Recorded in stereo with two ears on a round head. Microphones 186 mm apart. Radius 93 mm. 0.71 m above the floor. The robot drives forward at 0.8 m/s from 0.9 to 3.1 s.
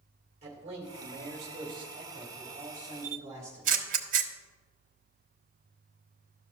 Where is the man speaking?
30° right (ahead or behind), 2.5 m; by 3.8 s 20° right (ahead or behind), 4 m.